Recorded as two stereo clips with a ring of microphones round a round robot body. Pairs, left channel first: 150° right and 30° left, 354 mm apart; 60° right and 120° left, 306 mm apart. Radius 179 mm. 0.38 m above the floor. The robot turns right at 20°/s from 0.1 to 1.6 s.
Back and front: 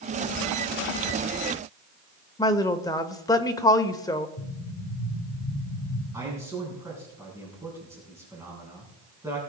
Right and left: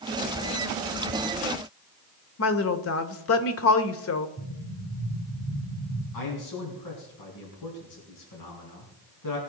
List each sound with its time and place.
2.4 s a woman speaking: 75° right, 1.0 m
4.4 s an explosion: 125° right, 3 m
6.1 s a man speaking: 50° right, 4 m